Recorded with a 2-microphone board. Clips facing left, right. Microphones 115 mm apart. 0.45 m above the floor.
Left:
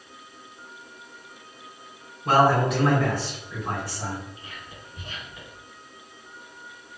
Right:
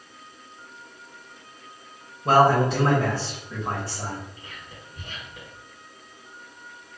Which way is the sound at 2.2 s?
30° right (ahead or behind).